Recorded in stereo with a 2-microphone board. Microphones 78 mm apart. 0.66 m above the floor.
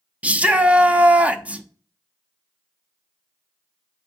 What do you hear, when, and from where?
0.2 s a shout: 20° right (ahead or behind), 0.6 m